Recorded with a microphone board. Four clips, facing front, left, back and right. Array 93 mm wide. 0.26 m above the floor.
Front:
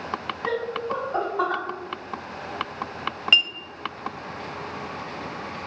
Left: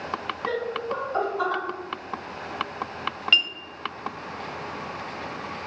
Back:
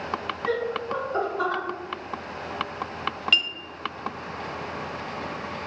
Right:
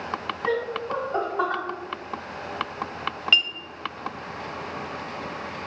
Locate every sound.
0.5 s laughter: 40° right, 1.9 m
3.3 s a clink: 15° right, 0.6 m